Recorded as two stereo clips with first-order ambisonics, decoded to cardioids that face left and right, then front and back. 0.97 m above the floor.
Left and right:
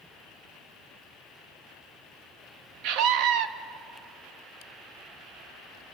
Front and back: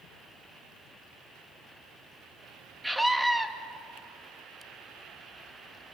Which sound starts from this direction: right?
A scream, at 2.8 s.